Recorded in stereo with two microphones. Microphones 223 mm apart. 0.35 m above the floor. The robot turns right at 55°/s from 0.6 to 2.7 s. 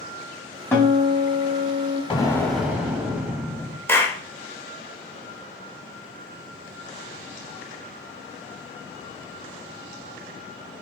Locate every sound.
0.7 s a guitar: 10° left, 1.7 m; by 2.0 s 80° left, 1.7 m
2.1 s an explosion: 155° left, 0.9 m; by 3.8 s 170° right, 0.9 m
3.9 s a clap: 10° left (ahead or behind), 0.7 m